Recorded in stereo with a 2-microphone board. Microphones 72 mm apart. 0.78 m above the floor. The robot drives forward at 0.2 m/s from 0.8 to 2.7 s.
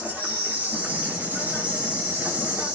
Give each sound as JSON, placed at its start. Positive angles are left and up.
{"t": 0.0, "sound": "an insect", "side_deg": -20, "distance_m": 0.7}